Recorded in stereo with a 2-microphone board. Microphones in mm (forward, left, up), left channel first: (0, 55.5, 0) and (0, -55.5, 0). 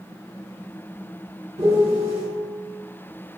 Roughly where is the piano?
Right.